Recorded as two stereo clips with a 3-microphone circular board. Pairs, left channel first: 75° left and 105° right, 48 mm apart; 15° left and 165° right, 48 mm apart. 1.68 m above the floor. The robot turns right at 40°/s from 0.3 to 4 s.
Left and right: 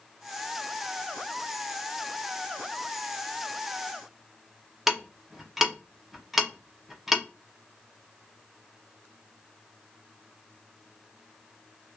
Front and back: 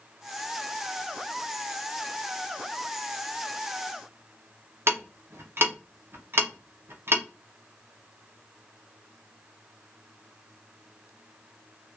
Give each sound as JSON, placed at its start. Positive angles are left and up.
{"t": 4.9, "sound": "ticking", "azimuth_deg": 170, "distance_m": 0.6}